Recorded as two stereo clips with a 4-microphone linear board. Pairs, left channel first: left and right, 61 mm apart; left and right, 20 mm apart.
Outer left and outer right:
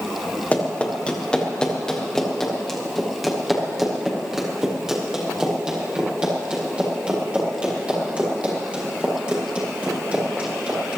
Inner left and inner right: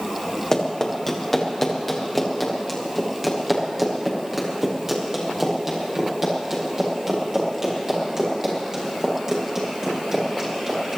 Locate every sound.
0.5 s running footsteps: 25° left (ahead or behind), 4 m; by 11.0 s 25° right (ahead or behind), 11 m